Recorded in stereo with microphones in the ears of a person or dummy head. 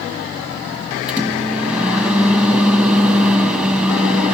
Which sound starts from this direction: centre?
A microwave, at 1.1 s.